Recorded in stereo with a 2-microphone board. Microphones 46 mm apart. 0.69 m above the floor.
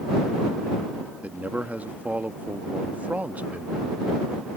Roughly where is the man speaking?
Right.